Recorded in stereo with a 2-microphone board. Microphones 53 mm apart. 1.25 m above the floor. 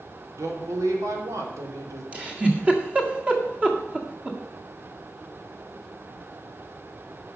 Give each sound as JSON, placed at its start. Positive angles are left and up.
{"t": 0.4, "sound": "a woman speaking", "side_deg": -75, "distance_m": 3.0}
{"t": 2.1, "sound": "a giggle", "side_deg": -25, "distance_m": 1.8}